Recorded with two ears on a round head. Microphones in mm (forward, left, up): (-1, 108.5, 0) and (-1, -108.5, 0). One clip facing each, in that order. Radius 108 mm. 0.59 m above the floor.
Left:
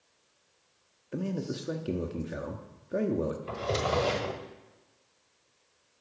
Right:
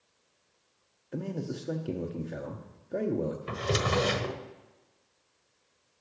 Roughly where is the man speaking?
Centre.